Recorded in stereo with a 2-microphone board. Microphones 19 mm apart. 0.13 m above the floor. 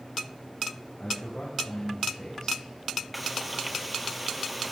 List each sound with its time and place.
1.0 s a man speaking: 35° left (ahead or behind), 9 m
3.1 s frying: 5° right (ahead or behind), 3.5 m